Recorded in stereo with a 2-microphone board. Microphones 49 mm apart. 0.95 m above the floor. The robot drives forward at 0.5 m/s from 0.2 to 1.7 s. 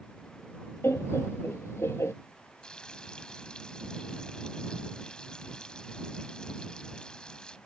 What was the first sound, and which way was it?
Laughter, 60° left (ahead or behind).